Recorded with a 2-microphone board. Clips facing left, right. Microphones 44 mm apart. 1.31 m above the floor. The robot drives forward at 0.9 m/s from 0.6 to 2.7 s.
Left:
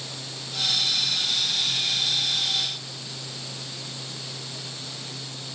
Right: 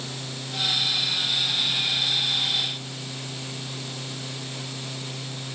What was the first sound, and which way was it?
Only background noise.